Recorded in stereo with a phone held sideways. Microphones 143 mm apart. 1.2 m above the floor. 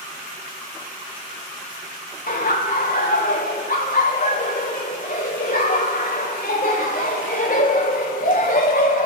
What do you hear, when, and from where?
2.3 s laughter: 70° left (ahead or behind), 0.9 m